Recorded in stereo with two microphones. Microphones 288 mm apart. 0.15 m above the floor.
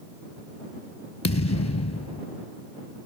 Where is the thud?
65° left (ahead or behind).